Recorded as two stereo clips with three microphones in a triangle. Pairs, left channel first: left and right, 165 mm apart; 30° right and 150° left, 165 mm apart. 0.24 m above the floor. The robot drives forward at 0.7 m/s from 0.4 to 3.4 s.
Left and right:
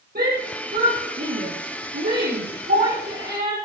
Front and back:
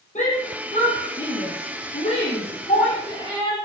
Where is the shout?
70° right, 7 m; by 3.6 s 90° right, 7 m.